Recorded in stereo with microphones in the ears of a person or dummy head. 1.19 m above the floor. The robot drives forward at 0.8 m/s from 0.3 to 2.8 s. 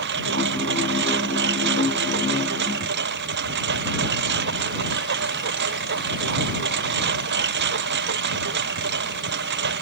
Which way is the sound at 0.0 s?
65° right (ahead or behind).